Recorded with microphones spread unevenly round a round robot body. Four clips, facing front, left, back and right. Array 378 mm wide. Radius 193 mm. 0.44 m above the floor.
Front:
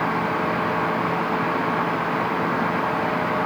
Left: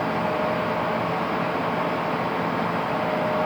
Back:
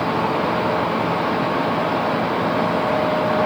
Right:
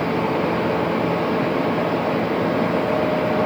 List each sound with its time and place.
Only background noise.